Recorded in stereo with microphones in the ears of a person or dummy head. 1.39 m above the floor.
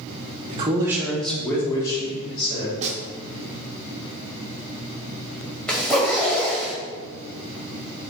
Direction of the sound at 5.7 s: 10° left (ahead or behind).